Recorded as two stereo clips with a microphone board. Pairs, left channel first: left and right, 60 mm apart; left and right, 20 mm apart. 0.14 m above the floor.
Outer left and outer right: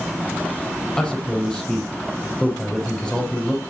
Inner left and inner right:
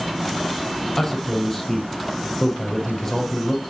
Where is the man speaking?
10° left (ahead or behind), 5.5 m.